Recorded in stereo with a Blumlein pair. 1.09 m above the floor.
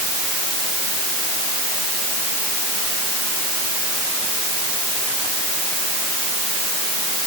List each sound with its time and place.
Only background noise.